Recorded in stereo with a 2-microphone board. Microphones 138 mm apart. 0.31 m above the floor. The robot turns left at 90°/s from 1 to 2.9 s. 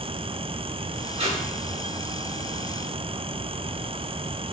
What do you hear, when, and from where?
1.2 s tape being pulled: 50° right (ahead or behind), 0.6 m; by 1.4 s 40° right (ahead or behind), 0.6 m